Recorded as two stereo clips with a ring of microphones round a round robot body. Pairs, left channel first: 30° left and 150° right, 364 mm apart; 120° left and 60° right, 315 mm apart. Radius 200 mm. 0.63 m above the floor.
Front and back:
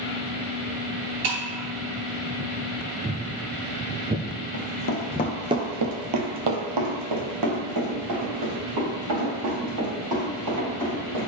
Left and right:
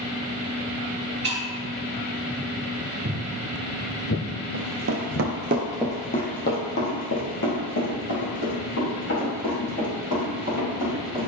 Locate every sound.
1.2 s breaking glass: 120° right, 2.5 m
3.0 s footsteps: 105° right, 0.7 m; by 5.3 s 130° left, 1.2 m
4.5 s running footsteps: 15° right, 1.6 m; by 11.3 s 175° left, 8.5 m